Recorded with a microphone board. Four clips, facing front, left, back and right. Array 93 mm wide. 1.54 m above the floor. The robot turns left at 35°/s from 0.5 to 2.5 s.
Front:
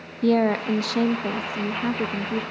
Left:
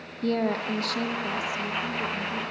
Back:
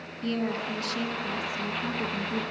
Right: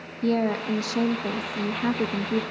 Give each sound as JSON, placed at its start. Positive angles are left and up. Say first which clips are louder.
{"t": 0.2, "sound": "a woman speaking", "louder": "right 2 dB, front 10 dB", "azimuth_deg": 0, "distance_m": 1.4}